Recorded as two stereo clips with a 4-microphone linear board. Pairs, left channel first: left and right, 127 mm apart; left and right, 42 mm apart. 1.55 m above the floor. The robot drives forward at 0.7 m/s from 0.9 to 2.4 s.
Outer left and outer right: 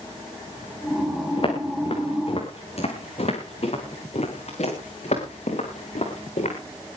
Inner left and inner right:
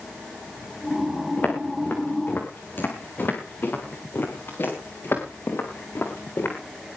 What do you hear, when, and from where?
1.4 s footsteps: 45° left (ahead or behind), 7 m; by 6.5 s 65° left (ahead or behind), 9 m